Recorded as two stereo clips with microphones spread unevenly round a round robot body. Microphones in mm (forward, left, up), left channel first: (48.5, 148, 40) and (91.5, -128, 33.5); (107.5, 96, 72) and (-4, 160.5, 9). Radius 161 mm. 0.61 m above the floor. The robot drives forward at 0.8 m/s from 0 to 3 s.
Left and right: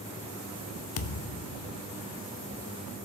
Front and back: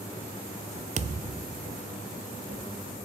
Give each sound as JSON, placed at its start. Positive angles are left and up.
{"t": 1.0, "sound": "a thud", "azimuth_deg": 125, "distance_m": 0.5}